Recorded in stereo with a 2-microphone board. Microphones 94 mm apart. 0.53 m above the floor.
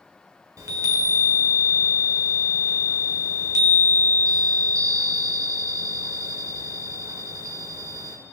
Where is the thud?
No thud in this recording.